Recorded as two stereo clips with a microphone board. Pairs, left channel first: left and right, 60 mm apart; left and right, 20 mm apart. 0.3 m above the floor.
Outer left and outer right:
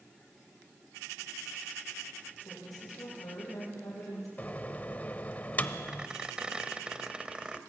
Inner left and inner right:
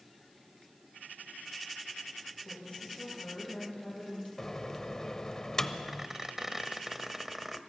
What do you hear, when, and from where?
2.5 s a woman speaking: 80° left, 9.5 m
4.4 s a microwave: 30° left (ahead or behind), 0.9 m
5.9 s a squeak: 15° right (ahead or behind), 1.0 m